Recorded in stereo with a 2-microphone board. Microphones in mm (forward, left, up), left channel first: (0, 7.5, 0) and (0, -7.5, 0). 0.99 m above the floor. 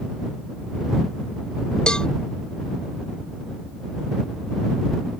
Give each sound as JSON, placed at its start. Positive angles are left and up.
{"t": 1.9, "sound": "a cowbell", "side_deg": 65}